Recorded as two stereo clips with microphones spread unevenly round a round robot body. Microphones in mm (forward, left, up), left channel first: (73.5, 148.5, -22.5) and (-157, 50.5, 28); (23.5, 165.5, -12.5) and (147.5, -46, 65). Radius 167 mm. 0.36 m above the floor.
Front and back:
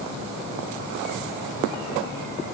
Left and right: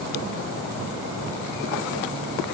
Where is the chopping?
No chopping in this recording.